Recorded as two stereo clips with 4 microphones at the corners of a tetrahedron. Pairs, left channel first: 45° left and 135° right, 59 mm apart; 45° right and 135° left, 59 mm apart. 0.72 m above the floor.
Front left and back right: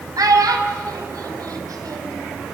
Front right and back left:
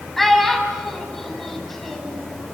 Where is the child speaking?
135° right, 4 m.